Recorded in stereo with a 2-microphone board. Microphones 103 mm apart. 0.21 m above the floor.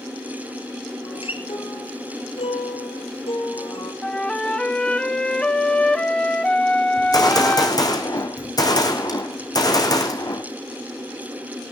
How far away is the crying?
No crying in this recording.